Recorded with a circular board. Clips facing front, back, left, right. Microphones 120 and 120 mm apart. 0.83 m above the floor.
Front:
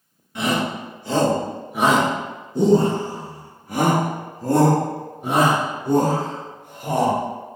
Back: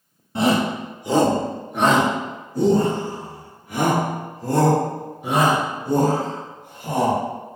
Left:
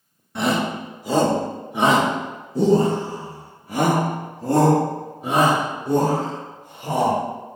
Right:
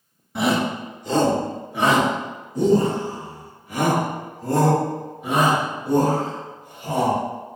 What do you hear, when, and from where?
0.3 s a shout: 175° right, 1.0 m; by 7.2 s 35° left, 3 m